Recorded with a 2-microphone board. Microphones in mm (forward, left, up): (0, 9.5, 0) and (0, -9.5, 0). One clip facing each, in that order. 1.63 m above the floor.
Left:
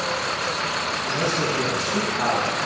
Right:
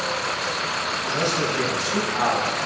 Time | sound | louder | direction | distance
1.0 | a man speaking | right 1 dB | 60° right (ahead or behind) | 5.5 m